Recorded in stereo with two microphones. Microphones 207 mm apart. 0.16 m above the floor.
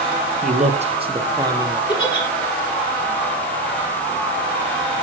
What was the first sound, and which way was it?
A man speaking, 40° right (ahead or behind).